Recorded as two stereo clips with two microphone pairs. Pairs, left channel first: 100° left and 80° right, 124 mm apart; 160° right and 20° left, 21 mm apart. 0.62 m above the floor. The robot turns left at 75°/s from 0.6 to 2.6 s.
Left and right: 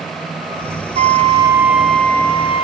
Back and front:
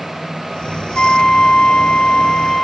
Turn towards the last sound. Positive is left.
turn(degrees=135)